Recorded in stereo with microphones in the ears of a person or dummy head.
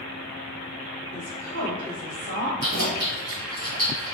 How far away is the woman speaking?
About 1.4 m.